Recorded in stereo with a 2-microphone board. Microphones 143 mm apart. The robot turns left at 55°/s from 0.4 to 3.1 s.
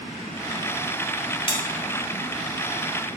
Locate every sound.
1.5 s a bell: 40° left (ahead or behind), 0.8 m